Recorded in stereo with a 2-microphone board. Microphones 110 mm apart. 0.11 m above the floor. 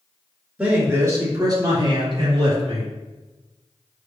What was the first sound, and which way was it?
A man speaking, 10° right (ahead or behind).